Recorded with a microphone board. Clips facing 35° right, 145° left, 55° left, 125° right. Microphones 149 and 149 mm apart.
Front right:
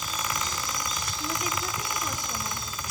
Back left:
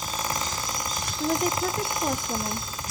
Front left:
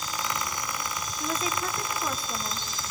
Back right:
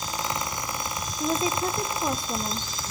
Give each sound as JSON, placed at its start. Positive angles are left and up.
{"t": 1.2, "sound": "a woman speaking", "azimuth_deg": 175, "distance_m": 1.0}